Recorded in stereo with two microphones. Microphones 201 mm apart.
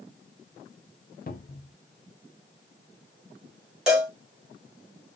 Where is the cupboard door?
45° left (ahead or behind), 0.6 m.